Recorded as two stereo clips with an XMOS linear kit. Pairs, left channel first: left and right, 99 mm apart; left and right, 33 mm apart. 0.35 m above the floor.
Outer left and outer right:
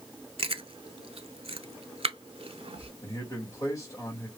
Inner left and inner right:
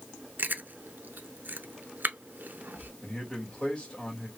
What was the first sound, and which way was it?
Chewing, 80° right.